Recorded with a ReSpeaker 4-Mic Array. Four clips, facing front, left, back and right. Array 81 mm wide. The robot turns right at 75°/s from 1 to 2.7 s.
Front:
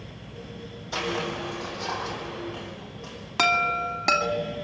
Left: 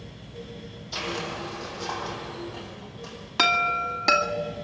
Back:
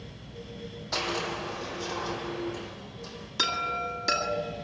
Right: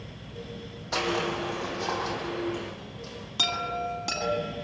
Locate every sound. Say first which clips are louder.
0.9 s crushing: right 4 dB, front 2 dB; 120° right, 6 m; by 3.1 s 5° left, 6 m
3.4 s a chime: left 7 dB, front 7 dB; 35° left, 2.5 m